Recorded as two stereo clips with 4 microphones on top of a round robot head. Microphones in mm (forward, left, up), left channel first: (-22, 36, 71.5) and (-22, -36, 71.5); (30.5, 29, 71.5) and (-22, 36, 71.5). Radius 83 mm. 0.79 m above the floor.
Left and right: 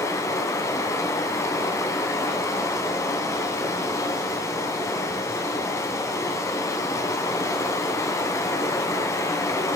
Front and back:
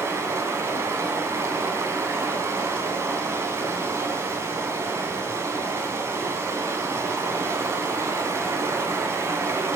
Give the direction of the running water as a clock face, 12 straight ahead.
7 o'clock.